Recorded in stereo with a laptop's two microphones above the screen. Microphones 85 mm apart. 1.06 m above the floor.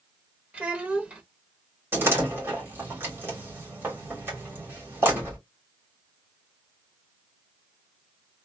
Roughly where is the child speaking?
Centre.